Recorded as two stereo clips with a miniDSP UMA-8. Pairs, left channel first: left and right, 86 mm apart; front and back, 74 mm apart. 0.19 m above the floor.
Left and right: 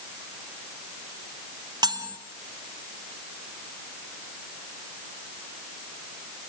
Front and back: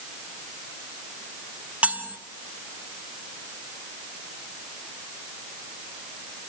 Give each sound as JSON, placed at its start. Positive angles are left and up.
{"t": 1.8, "sound": "cutlery clinking", "azimuth_deg": -110, "distance_m": 1.5}